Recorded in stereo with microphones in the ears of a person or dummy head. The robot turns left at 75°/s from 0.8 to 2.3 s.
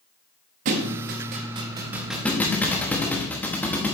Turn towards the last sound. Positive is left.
turn(degrees=5)  # may be behind; listen again after turning